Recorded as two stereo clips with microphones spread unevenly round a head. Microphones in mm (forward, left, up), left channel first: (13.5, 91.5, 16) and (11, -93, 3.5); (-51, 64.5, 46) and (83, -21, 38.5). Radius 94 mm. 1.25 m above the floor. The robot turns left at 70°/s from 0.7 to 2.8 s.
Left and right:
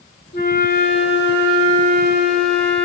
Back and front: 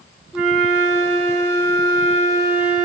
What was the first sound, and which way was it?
A flute, 50° left.